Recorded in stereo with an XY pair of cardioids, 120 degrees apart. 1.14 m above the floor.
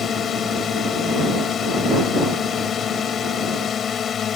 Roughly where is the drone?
Ahead left.